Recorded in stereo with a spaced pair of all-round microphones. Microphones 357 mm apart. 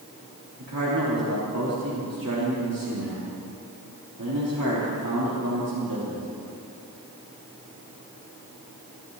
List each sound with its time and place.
0.6 s a man speaking: 70° right (ahead or behind), 3.5 m